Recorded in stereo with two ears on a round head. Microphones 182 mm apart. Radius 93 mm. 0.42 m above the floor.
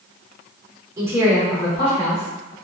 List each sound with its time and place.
1.0 s a woman speaking: 20° right (ahead or behind), 0.9 m; by 2.5 s 50° left (ahead or behind), 1.2 m